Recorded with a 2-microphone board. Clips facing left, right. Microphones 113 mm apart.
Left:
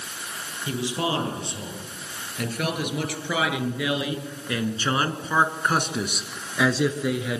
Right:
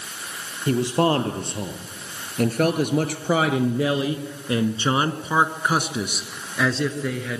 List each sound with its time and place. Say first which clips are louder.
0.7 s a man speaking: right 7 dB; 50° right (ahead or behind), 3 m; by 7.4 s 15° left (ahead or behind), 1.7 m